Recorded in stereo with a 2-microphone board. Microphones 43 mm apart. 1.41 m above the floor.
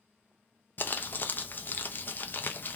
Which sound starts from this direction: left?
Crumpling, at 0.8 s.